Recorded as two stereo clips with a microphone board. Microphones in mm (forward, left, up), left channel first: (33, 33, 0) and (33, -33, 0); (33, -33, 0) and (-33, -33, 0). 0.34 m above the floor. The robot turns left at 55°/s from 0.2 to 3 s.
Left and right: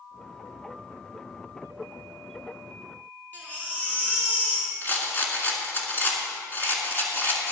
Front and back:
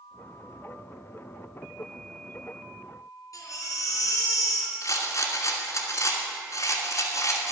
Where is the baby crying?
25° left, 3 m.